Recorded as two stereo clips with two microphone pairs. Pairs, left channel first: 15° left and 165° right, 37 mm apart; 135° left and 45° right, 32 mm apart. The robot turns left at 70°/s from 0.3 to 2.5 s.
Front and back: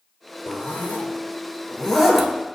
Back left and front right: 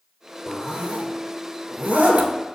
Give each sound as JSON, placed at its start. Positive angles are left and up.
{"t": 0.5, "sound": "a zipper", "azimuth_deg": 35, "distance_m": 0.8}